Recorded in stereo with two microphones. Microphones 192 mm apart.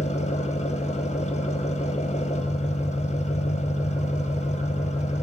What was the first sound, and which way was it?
An engine running, 35° left (ahead or behind).